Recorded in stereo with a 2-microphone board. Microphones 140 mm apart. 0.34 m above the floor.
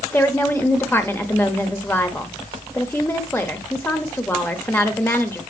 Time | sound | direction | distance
0.1 | a woman speaking | 15° left (ahead or behind) | 0.9 m